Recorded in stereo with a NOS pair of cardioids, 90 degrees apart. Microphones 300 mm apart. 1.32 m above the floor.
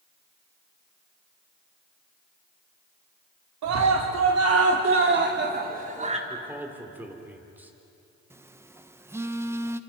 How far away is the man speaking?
About 4 m.